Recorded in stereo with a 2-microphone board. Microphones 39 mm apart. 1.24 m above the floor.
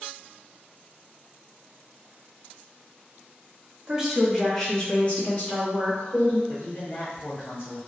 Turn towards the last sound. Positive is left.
turn(degrees=60)  # may be behind; listen again after turning